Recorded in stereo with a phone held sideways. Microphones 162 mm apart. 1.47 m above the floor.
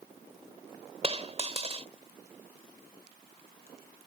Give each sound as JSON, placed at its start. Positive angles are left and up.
{"t": 1.0, "sound": "a dropped coin", "side_deg": -40}